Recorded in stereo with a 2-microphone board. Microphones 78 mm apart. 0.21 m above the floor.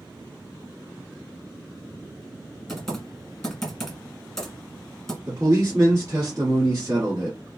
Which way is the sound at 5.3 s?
40° right (ahead or behind).